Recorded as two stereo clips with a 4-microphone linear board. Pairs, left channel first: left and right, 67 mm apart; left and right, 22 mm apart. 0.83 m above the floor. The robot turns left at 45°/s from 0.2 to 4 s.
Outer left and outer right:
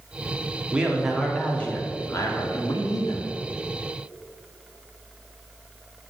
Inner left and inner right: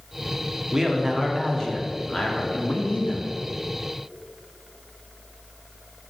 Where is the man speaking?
160° right, 1.9 m; by 3.3 s 85° left, 1.9 m.